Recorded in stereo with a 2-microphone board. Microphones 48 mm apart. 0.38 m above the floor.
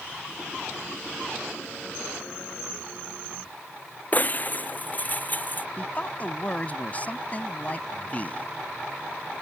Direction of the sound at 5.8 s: 30° left (ahead or behind).